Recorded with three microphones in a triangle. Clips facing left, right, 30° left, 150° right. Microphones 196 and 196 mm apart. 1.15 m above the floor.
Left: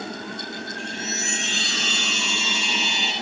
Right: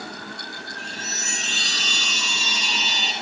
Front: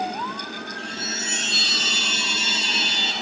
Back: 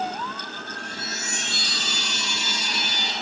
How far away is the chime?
About 5 m.